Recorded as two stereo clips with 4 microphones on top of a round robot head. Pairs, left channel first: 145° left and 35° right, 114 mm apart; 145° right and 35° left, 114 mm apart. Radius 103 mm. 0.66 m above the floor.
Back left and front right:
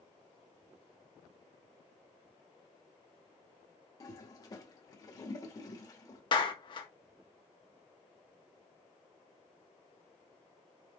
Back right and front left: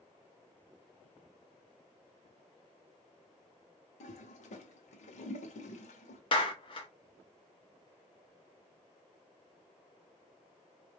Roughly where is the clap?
Behind.